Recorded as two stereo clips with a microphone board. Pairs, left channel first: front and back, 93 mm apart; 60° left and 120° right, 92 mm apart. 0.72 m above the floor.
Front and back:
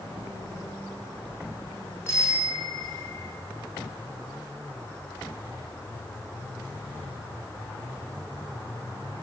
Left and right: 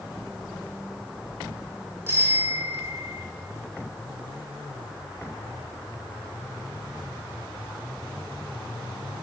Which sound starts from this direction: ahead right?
A bicycle bell, at 2.1 s.